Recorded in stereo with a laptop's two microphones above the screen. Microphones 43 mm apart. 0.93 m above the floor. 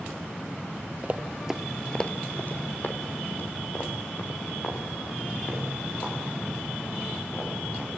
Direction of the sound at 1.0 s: 30° right (ahead or behind).